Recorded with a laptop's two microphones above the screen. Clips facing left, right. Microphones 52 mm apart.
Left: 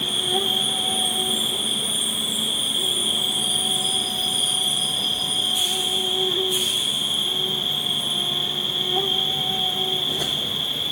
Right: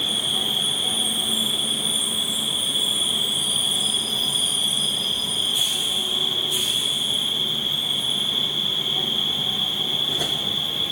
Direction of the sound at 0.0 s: 70° left (ahead or behind).